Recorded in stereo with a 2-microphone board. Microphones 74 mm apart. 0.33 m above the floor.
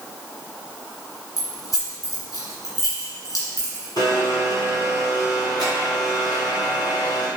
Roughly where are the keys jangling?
Left.